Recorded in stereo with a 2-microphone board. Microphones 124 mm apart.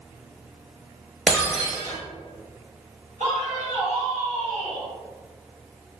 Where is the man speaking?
70° right (ahead or behind), 1.6 m.